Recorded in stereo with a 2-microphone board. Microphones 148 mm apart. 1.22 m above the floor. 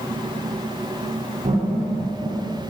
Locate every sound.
1.4 s laughter: 65° right (ahead or behind), 3.5 m